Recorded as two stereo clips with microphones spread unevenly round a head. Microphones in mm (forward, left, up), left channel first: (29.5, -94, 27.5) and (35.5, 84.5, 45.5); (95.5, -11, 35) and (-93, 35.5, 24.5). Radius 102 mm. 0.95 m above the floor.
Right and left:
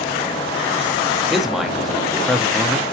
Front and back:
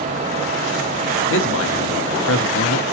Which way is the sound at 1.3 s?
Straight ahead.